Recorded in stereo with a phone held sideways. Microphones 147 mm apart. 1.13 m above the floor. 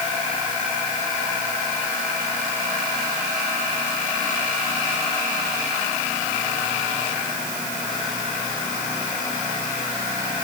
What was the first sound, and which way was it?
Only background noise.